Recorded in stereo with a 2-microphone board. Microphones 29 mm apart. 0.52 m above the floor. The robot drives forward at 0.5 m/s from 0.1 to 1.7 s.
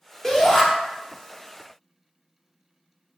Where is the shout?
15° left (ahead or behind), 0.7 m.